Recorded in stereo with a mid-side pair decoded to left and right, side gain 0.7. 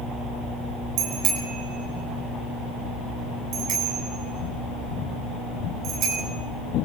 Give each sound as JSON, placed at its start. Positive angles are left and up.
{"t": 1.0, "sound": "a bicycle bell", "azimuth_deg": -55, "distance_m": 5.5}